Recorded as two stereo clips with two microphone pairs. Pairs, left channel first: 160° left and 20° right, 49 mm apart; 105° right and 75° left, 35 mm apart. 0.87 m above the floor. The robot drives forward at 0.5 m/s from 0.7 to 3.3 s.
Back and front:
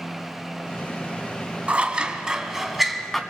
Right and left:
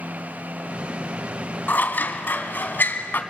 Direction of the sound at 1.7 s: 80° right.